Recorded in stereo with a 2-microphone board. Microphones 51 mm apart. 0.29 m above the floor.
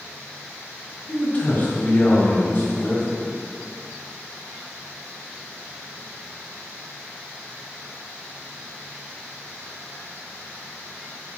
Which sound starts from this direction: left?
A man speaking, at 1.1 s.